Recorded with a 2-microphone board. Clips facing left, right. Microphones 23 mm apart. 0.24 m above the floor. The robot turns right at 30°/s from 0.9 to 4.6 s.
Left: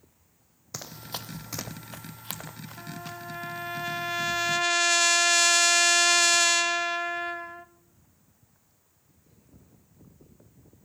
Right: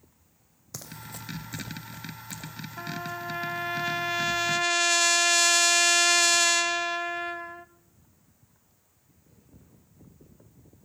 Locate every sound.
0.7 s running footsteps: 20° left (ahead or behind), 0.8 m; by 3.2 s 75° left (ahead or behind), 3 m
2.8 s a trumpet: 45° right, 0.5 m; by 7.7 s 10° left, 0.5 m